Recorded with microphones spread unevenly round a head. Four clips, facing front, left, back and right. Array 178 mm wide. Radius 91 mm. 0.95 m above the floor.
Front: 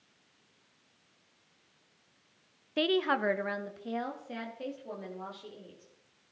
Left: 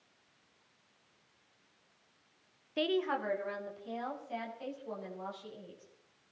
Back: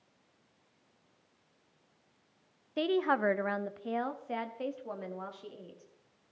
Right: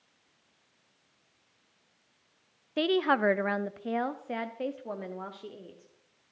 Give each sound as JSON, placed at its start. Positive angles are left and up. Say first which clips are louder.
{"t": 2.8, "sound": "a woman speaking", "louder": "right 6 dB, even", "azimuth_deg": -50, "distance_m": 0.6}